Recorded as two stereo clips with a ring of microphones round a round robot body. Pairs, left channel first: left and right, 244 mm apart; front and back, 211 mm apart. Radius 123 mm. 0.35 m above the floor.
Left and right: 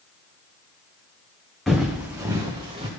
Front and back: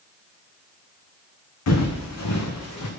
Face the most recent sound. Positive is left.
turn(degrees=-20)